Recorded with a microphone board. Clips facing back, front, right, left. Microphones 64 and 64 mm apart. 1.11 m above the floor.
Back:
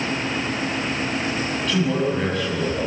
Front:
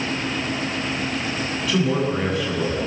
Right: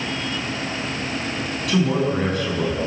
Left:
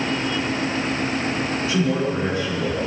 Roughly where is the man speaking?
Right.